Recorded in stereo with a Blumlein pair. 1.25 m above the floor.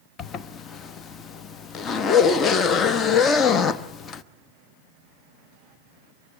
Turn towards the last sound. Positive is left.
turn(degrees=25)